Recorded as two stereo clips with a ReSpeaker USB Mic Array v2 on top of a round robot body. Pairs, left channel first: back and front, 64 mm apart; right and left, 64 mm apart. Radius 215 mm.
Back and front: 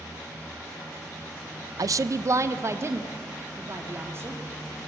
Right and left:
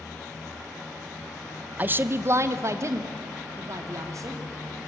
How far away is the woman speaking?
About 0.5 m.